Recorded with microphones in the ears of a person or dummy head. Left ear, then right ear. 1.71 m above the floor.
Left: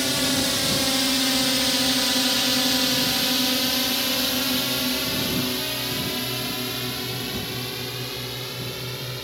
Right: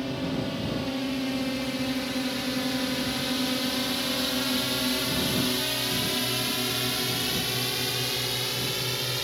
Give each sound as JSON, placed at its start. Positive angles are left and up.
{"t": 0.0, "sound": "a drone", "side_deg": 65}